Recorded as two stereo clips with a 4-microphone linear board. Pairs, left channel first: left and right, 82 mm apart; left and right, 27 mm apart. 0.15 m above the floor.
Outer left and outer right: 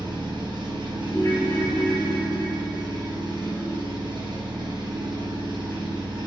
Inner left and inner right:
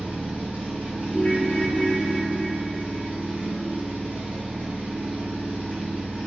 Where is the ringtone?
30° left (ahead or behind), 1.1 m.